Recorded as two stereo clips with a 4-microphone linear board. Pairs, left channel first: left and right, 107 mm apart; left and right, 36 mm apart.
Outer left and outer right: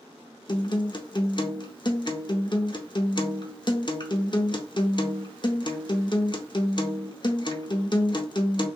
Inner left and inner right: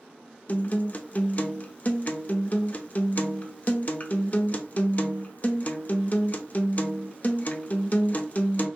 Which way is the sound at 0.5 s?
45° left (ahead or behind).